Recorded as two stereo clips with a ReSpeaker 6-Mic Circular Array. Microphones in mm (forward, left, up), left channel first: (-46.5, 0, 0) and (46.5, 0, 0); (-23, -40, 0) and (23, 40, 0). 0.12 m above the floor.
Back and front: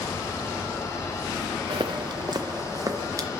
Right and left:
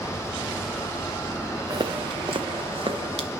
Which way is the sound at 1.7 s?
20° left.